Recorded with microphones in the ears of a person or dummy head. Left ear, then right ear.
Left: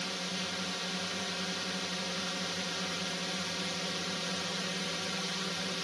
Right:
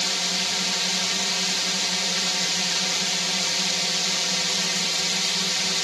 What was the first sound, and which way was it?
A drone, 40° right (ahead or behind).